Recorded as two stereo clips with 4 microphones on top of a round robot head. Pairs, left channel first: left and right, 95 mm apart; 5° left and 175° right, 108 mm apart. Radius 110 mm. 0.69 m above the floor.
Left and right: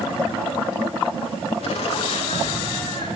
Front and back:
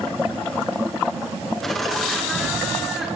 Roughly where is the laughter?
Left.